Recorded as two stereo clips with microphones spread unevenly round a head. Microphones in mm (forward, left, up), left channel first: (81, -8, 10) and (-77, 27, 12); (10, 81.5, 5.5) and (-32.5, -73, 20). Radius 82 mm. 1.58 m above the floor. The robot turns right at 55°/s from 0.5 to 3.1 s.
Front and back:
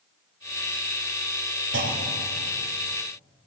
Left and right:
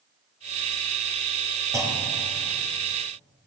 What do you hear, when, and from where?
1.7 s a clunk: 175° right, 4 m; by 2.4 s 135° right, 4 m